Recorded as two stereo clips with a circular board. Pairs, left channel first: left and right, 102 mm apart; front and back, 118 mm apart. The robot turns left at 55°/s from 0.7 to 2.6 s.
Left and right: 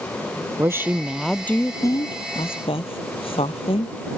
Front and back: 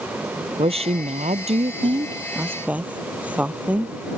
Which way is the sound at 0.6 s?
155° right.